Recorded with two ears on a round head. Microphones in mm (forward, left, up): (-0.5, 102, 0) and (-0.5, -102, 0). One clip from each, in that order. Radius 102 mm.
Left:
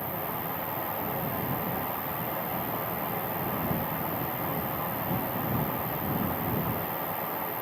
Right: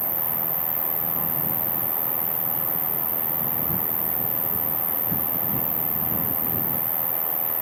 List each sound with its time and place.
0.0 s an insect: 45° right (ahead or behind)